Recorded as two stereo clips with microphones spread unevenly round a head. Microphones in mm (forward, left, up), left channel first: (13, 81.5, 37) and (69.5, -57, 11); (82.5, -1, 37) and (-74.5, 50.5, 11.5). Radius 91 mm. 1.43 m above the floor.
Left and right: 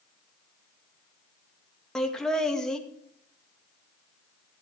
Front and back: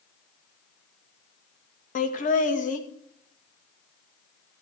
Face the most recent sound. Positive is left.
turn(degrees=25)